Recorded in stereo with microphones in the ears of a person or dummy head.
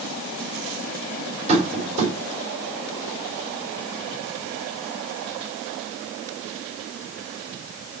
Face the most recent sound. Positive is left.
turn(degrees=-35)  # may be behind; listen again after turning